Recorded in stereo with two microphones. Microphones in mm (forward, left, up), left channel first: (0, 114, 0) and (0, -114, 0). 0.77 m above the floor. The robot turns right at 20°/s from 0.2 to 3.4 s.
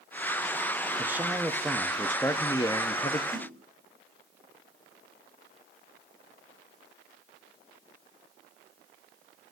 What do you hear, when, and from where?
1.0 s a man speaking: 10° right, 0.7 m; by 3.2 s 35° left, 0.7 m
3.3 s a splash: 75° right (ahead or behind), 4 m